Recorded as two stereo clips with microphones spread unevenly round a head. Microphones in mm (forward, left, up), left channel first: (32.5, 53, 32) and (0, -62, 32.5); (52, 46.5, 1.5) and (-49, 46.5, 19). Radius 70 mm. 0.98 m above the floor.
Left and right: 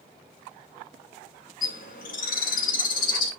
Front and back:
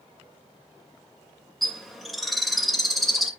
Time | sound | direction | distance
1.6 | a bird | 90° left | 2.5 m